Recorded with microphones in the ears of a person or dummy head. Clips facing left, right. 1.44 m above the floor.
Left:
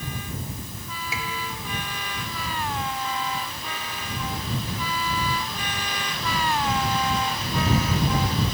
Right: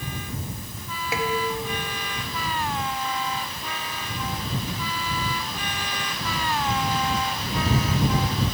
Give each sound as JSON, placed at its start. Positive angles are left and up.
{"t": 1.1, "sound": "dishes clattering", "side_deg": -55}